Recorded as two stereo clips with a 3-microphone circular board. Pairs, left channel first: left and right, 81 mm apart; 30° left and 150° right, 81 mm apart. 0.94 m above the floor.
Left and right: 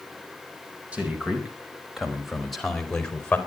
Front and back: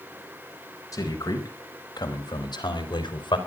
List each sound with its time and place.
0.9 s a man speaking: 15° right, 4.5 m; by 3.4 s 15° left, 3.5 m